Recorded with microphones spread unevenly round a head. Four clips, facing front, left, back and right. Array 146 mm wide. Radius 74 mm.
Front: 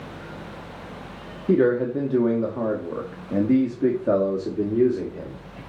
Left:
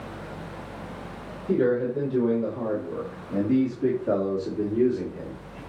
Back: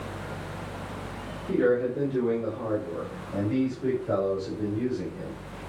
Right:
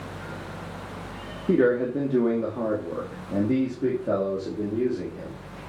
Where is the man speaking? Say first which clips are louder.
Right 2 dB, front 4 dB; 45° right, 2.5 m; by 5.6 s 10° left, 3 m.